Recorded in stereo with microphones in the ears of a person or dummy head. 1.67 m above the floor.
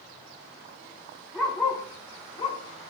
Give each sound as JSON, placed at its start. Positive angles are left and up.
{"t": 1.3, "sound": "a dog barking", "side_deg": 0, "distance_m": 1.5}